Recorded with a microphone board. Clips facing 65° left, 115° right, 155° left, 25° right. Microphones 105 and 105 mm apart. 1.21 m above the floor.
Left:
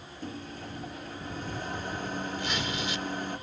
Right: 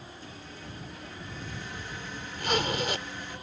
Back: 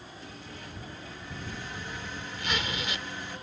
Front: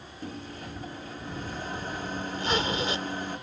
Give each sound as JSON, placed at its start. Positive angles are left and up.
{"t": 0.2, "sound": "a microwave", "azimuth_deg": 25}
{"t": 2.4, "sound": "a zipper", "azimuth_deg": -75}